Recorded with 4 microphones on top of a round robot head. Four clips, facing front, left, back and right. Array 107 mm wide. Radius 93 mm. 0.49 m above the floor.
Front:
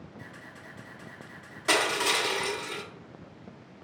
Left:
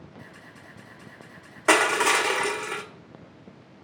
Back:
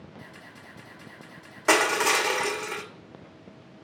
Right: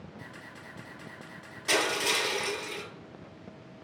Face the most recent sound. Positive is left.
turn(degrees=125)